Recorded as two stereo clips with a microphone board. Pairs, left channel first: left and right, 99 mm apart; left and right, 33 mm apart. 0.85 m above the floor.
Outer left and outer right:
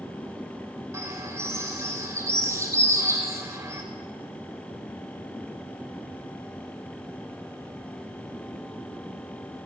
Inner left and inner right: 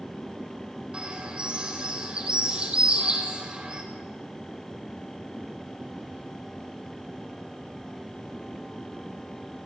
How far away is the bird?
About 4.5 m.